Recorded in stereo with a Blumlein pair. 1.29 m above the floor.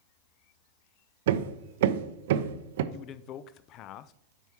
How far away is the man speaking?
About 0.5 m.